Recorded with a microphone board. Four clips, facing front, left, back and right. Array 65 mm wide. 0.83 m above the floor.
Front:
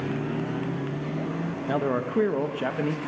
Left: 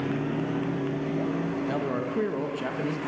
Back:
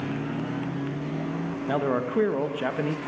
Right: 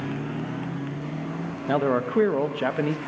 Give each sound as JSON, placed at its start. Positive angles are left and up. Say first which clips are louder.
{"t": 1.7, "sound": "a man speaking", "louder": "right 5 dB, back 1 dB", "azimuth_deg": -100, "distance_m": 0.8}